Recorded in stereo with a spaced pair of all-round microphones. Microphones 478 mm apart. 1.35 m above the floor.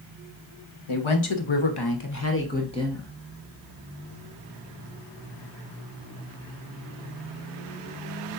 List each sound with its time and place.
0.9 s a woman speaking: 85° left, 1.0 m; by 3.1 s centre (ahead or behind), 1.1 m